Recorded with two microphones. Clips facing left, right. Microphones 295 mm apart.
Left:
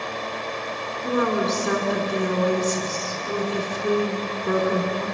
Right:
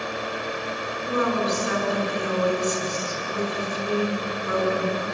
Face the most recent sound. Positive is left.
turn(degrees=55)  # may be behind; listen again after turning